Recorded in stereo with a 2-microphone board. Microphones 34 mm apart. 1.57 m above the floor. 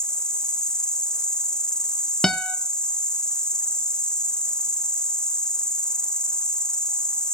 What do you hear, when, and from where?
0.0 s an insect: 25° left (ahead or behind), 0.8 m
2.2 s a guitar: 20° left (ahead or behind), 1.0 m